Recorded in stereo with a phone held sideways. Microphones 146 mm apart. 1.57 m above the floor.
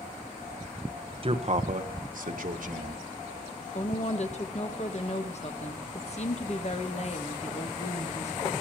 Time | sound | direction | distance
1.2 | a man speaking | 40° right (ahead or behind) | 1.0 m
3.8 | a woman speaking | 50° left (ahead or behind) | 1.2 m